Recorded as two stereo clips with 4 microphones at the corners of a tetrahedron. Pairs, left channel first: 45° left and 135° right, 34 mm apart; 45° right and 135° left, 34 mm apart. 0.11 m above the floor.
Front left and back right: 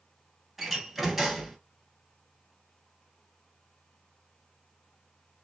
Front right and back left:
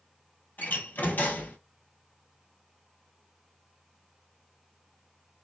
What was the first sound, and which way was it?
A door slam, 55° right.